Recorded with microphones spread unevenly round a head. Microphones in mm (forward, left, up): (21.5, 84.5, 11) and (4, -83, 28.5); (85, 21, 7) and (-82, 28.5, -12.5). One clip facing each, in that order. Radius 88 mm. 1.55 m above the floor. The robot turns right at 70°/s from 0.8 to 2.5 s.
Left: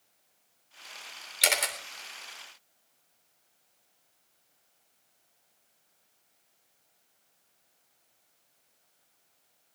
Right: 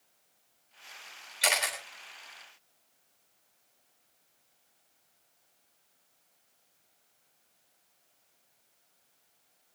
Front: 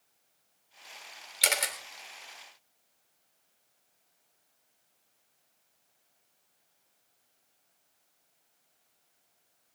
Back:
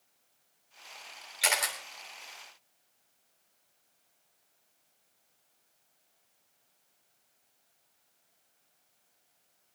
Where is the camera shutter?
35° left, 3 m; by 1.8 s 60° left, 3 m.